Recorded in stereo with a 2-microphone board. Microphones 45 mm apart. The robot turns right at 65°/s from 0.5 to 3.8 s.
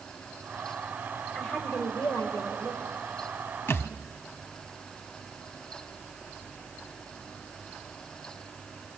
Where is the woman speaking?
30° left, 3.5 m; by 3.0 s 140° left, 3.5 m.